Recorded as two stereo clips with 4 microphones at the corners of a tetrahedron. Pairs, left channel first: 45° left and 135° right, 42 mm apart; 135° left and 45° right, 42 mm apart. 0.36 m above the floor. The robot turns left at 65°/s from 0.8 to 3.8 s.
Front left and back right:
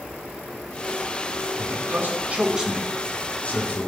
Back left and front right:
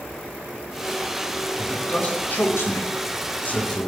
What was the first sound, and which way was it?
A man speaking, 140° right.